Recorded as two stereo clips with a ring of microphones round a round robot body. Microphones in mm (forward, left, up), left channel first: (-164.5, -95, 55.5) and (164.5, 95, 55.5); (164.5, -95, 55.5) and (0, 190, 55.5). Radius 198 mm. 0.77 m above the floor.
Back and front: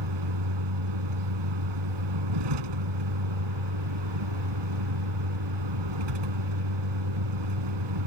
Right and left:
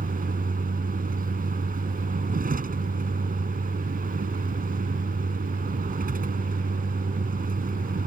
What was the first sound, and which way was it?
A vehicle, 55° left.